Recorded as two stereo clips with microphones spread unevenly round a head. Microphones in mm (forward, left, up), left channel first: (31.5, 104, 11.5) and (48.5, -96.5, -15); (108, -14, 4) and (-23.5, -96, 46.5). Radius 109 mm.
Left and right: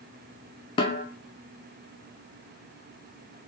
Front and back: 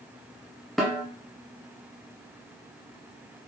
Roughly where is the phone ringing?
I don't hear a phone ringing.